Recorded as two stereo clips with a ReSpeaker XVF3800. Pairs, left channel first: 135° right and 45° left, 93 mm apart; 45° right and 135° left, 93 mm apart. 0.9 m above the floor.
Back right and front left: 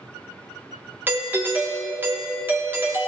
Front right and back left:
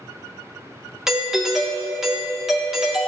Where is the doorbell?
50° left, 0.9 m.